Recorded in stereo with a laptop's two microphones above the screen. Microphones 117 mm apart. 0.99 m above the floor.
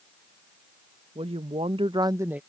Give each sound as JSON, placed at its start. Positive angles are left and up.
{"t": 1.1, "sound": "a woman speaking", "side_deg": -60}